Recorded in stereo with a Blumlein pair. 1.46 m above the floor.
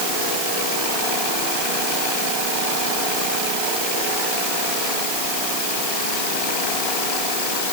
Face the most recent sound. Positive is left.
No sound to turn to.